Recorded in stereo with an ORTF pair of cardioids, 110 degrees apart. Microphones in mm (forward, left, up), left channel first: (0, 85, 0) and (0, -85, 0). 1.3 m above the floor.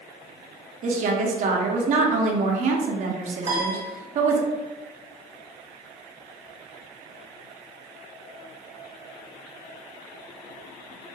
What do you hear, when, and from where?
0.8 s a woman speaking: 45° right, 0.7 m
3.4 s a piano: 45° right, 1.1 m